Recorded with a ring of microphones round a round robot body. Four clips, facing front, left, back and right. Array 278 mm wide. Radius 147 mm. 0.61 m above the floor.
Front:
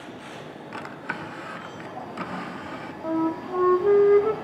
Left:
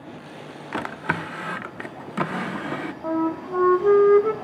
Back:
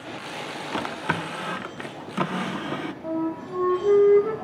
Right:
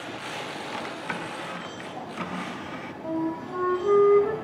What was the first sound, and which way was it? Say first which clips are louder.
A drawer: left 9 dB, back 7 dB; 130° left.